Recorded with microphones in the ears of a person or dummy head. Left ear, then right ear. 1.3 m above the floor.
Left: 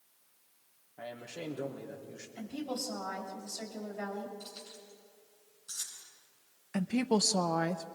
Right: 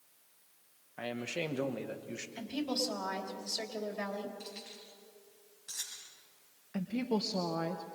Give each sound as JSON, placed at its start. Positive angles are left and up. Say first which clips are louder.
{"t": 1.0, "sound": "a man speaking", "louder": "right 6 dB", "side_deg": -60, "distance_m": 1.4}
{"t": 2.4, "sound": "a woman speaking", "louder": "right 3 dB", "side_deg": -20, "distance_m": 3.0}
{"t": 4.4, "sound": "keys jangling", "louder": "right 1 dB", "side_deg": -60, "distance_m": 6.0}
{"t": 6.7, "sound": "a woman speaking", "louder": "left 4 dB", "side_deg": 50, "distance_m": 0.6}